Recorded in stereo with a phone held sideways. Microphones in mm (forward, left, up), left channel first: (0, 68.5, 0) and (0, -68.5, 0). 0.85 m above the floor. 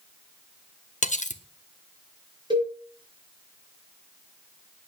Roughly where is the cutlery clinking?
Left.